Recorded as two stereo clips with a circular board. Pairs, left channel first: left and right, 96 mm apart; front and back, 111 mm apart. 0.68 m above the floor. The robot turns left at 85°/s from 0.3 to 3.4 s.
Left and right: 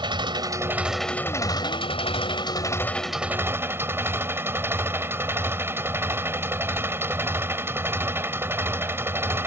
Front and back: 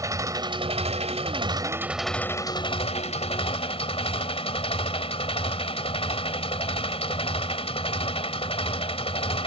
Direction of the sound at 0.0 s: 120° right.